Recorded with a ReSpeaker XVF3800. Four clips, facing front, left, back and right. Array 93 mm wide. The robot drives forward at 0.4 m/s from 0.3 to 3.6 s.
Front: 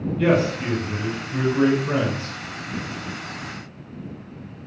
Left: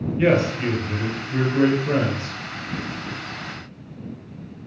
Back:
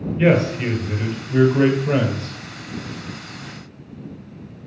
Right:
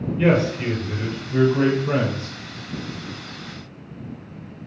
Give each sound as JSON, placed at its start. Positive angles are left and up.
{"t": 0.2, "sound": "a man speaking", "azimuth_deg": 155, "distance_m": 1.7}